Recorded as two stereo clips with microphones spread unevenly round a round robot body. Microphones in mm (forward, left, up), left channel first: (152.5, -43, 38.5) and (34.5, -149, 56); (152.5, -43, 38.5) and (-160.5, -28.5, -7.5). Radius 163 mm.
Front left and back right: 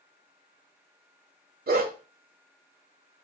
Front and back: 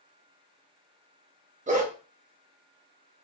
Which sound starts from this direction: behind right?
A dog barking, at 1.7 s.